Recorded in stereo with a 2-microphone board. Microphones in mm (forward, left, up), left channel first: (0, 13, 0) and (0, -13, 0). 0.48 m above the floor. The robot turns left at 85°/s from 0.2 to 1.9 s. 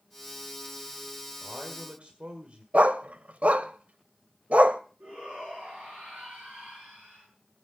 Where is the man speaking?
45° right, 1.7 m; by 2.6 s 85° right, 1.7 m.